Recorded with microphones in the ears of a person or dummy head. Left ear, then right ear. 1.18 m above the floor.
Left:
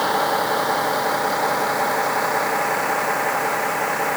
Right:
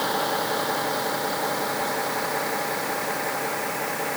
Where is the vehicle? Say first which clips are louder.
Left 5 dB; 25° left (ahead or behind); by 4.2 s 30° left (ahead or behind).